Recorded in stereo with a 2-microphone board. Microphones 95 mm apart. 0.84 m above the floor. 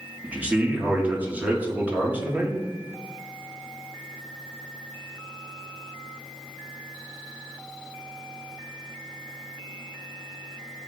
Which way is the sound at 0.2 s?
20° right (ahead or behind).